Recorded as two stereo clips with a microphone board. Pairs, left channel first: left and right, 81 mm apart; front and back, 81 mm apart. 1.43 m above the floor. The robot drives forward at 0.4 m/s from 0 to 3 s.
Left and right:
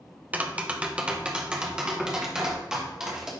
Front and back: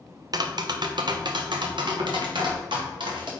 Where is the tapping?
160° right, 0.5 m; by 3.3 s 175° right, 1.5 m.